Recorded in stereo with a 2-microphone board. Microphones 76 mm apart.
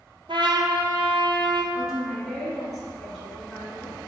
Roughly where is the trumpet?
Right.